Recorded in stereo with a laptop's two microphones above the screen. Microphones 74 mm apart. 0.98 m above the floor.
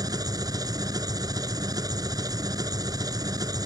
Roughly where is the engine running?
Right.